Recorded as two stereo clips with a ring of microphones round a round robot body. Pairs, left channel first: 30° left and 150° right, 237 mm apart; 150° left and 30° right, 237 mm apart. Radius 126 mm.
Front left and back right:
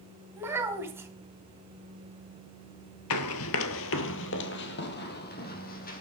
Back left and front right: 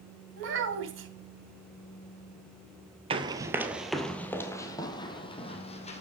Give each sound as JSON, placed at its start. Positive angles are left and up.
{"t": 0.4, "sound": "a child speaking", "azimuth_deg": -70, "distance_m": 2.5}
{"t": 3.1, "sound": "running footsteps", "azimuth_deg": 35, "distance_m": 1.0}